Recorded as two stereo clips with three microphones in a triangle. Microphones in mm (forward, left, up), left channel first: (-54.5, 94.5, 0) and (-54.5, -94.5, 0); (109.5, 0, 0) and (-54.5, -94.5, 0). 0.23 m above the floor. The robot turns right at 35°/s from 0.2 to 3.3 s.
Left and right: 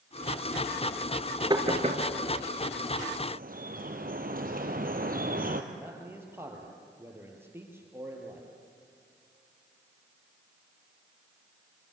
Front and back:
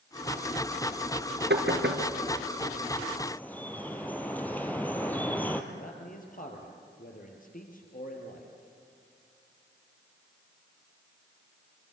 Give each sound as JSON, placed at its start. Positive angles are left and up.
{"t": 1.5, "sound": "knocking", "azimuth_deg": -155, "distance_m": 3.0}
{"t": 3.3, "sound": "dripping", "azimuth_deg": -50, "distance_m": 1.9}
{"t": 5.7, "sound": "a man speaking", "azimuth_deg": -10, "distance_m": 4.5}